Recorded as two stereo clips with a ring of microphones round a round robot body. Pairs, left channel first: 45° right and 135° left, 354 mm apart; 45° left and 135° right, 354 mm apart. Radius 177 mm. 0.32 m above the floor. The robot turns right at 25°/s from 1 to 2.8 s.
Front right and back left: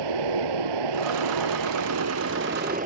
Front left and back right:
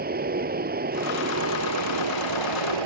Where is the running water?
160° left; by 2.9 s 155° right.